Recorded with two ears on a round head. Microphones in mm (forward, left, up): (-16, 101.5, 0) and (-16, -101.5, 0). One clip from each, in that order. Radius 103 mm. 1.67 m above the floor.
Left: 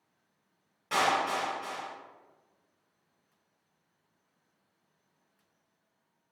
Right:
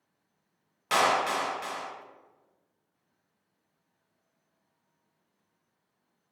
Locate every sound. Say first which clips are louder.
0.9 s a clap: right 3 dB; 50° right (ahead or behind), 0.7 m